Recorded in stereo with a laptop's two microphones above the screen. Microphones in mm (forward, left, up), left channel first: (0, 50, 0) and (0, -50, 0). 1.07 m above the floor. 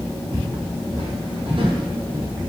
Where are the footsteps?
70° right (ahead or behind), 3.5 m; by 2.3 s 35° right (ahead or behind), 1.6 m.